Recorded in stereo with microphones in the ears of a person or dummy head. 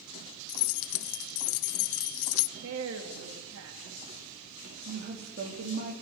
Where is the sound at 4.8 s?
55° right (ahead or behind), 3.5 m.